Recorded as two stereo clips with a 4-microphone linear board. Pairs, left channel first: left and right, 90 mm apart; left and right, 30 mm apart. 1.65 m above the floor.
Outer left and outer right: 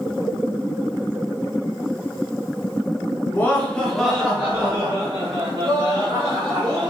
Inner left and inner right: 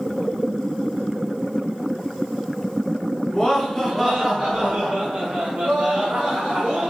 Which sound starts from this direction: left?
Laughter, at 3.3 s.